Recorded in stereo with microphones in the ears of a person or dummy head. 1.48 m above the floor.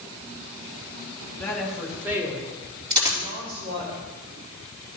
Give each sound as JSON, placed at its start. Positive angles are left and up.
{"t": 1.4, "sound": "a woman speaking", "side_deg": 10, "distance_m": 3.0}
{"t": 2.9, "sound": "a dropped coin", "side_deg": -25, "distance_m": 4.5}